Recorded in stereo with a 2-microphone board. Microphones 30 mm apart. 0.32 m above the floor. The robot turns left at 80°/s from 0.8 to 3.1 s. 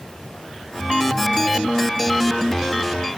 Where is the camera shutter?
I don't hear a camera shutter.